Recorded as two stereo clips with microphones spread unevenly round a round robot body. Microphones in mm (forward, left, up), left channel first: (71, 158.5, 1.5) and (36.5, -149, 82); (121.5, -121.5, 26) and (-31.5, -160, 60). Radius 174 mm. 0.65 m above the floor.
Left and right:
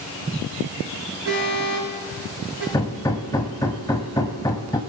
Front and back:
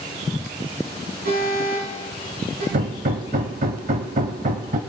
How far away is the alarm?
About 7 m.